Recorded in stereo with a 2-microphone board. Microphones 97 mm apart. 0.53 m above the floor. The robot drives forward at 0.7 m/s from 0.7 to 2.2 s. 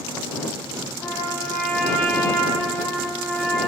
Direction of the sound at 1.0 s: 20° left (ahead or behind).